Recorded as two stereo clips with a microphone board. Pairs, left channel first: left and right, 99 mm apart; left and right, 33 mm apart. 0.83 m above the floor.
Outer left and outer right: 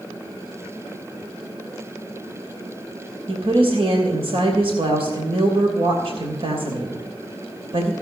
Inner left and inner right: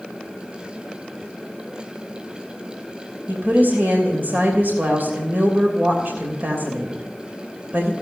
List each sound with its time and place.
3.3 s a woman speaking: 70° right (ahead or behind), 3 m